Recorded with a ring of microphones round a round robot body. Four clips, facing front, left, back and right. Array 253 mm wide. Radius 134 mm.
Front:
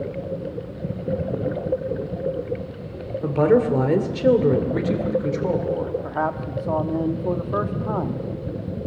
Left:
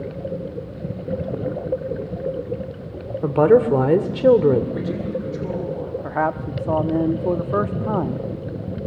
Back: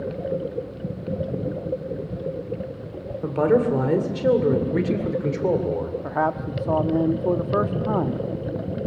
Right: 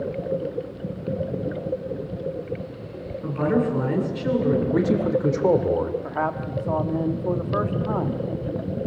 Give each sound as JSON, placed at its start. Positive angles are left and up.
{"t": 3.2, "sound": "a woman speaking", "azimuth_deg": 80, "distance_m": 2.5}
{"t": 4.7, "sound": "a man speaking", "azimuth_deg": -110, "distance_m": 2.5}
{"t": 6.0, "sound": "a man speaking", "azimuth_deg": 120, "distance_m": 1.0}